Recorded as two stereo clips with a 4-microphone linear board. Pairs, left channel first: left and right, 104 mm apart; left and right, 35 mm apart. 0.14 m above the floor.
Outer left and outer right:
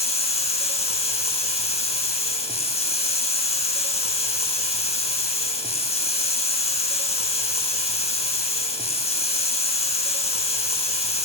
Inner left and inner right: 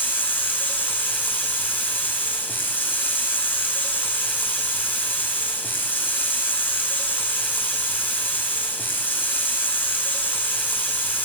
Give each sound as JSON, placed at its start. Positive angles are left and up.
{"t": 0.0, "sound": "running water", "side_deg": 85, "distance_m": 0.8}